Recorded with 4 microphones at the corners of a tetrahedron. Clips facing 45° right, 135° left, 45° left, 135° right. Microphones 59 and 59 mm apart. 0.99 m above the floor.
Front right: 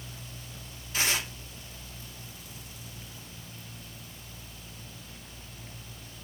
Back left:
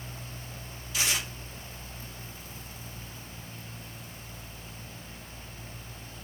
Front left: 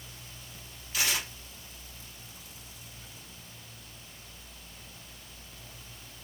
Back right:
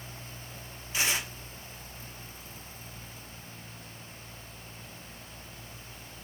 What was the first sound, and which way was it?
Tearing paper, 75° right.